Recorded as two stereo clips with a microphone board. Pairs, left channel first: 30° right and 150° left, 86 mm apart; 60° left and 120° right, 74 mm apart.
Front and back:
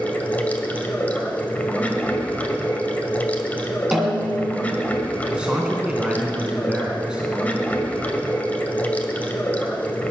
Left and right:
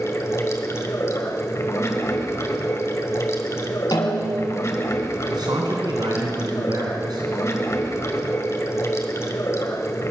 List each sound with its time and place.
0.0 s running water: 35° left, 1.5 m
3.9 s a snare drum: 65° left, 2 m
5.2 s a man speaking: 130° right, 3 m